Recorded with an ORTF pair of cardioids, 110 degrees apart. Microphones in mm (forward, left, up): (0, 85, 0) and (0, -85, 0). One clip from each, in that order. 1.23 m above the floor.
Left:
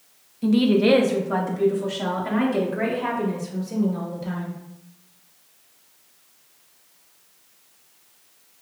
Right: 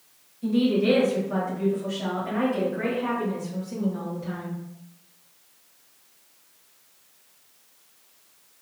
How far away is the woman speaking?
About 0.8 m.